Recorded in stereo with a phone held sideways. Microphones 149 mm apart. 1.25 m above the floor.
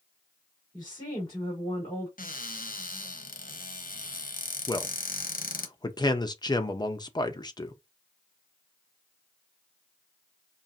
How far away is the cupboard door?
About 0.9 m.